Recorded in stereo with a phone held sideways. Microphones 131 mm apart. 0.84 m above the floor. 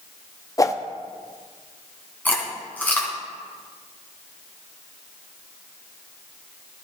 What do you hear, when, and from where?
0.6 s a whoosh: 25° left (ahead or behind), 0.6 m
2.2 s chewing: 15° left (ahead or behind), 2.5 m